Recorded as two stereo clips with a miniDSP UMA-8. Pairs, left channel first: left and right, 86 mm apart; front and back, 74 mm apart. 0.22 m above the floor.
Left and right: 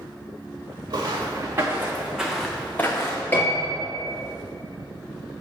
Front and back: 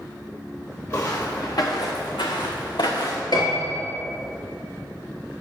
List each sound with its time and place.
0.9 s footsteps: 45° right, 2 m; by 3.2 s 40° left, 1.4 m
3.3 s a piano: 20° left, 3 m